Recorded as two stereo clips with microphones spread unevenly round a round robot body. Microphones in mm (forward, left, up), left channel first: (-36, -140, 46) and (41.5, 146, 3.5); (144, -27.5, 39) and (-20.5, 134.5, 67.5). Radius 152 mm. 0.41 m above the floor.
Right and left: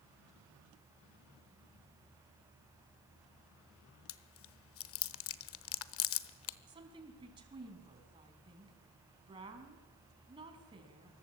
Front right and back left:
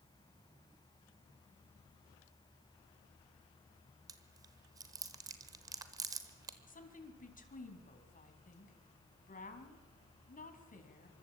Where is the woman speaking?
5° left, 4 m.